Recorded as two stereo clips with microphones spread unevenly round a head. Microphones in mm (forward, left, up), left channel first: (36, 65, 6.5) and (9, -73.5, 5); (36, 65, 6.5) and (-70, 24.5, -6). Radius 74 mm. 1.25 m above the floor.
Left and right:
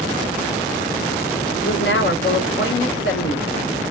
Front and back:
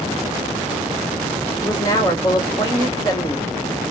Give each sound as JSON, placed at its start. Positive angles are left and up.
{"t": 1.6, "sound": "a woman speaking", "azimuth_deg": 80, "distance_m": 1.2}